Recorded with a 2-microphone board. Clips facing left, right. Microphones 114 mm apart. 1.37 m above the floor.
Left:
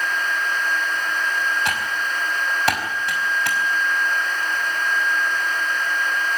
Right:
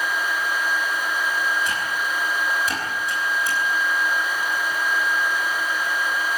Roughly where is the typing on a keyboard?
Left.